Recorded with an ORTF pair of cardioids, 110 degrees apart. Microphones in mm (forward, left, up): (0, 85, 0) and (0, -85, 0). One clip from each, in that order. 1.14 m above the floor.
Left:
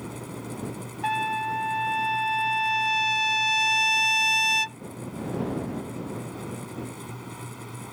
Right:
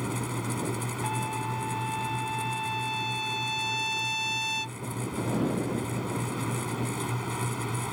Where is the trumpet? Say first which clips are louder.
Left 8 dB; 45° left.